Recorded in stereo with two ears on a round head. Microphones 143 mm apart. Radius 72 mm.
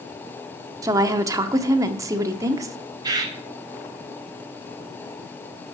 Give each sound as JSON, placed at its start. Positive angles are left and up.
{"t": 0.8, "sound": "a woman speaking", "side_deg": -20, "distance_m": 0.7}
{"t": 3.0, "sound": "a bird", "side_deg": -25, "distance_m": 1.7}